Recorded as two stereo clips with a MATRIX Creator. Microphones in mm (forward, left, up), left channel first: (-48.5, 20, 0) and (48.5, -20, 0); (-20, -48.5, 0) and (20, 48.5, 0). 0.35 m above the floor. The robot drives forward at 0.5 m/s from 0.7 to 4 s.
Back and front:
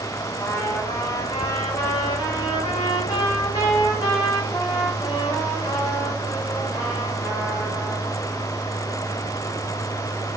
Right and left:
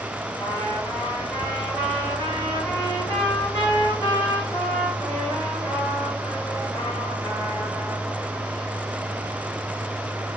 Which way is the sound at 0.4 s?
140° right.